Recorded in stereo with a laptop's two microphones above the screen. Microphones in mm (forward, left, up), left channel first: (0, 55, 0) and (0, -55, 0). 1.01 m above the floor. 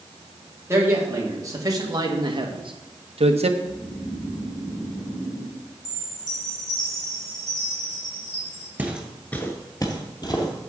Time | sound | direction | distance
0.7 | a man speaking | 25° right (ahead or behind) | 1.7 m
3.6 | snoring | 70° left (ahead or behind) | 2 m
5.8 | a chime | 35° right (ahead or behind) | 2.0 m
8.8 | footsteps | 15° right (ahead or behind) | 1.2 m